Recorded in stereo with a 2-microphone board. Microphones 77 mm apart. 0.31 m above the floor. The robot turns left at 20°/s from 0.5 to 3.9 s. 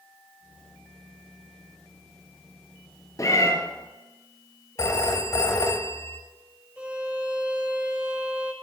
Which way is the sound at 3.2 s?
45° left (ahead or behind).